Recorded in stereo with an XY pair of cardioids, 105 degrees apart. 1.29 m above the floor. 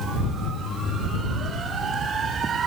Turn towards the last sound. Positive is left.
No sound to turn to.